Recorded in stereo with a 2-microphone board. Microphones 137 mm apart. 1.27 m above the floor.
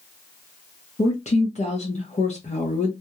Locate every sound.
1.0 s a woman speaking: 55° left (ahead or behind), 0.7 m